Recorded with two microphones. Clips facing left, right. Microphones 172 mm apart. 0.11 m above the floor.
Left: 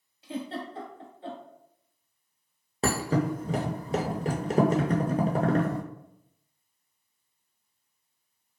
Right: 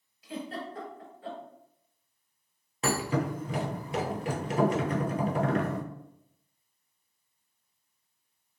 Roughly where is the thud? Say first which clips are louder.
Left 3 dB; left.